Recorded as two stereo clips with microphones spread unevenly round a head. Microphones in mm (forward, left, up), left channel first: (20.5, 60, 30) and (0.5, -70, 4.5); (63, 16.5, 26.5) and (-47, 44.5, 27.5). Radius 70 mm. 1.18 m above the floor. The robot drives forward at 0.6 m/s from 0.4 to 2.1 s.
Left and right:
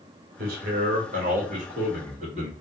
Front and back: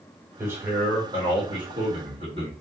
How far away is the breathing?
I don't hear breathing.